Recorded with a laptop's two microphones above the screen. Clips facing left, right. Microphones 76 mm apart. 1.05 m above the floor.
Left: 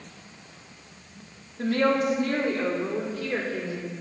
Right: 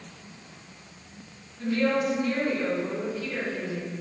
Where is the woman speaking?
75° left (ahead or behind), 2 m; by 3.9 s 55° left (ahead or behind), 3.5 m.